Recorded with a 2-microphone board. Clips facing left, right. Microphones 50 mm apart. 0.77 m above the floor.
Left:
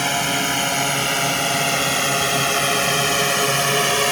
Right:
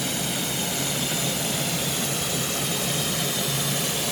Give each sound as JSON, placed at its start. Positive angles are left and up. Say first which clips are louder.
{"t": 0.0, "sound": "a drone", "louder": "left 8 dB", "side_deg": 55}